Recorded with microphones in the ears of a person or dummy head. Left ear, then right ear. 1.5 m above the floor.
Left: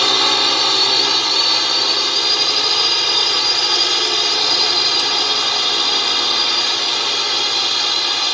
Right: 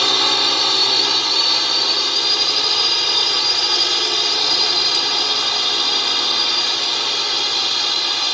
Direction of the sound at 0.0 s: 5° left (ahead or behind).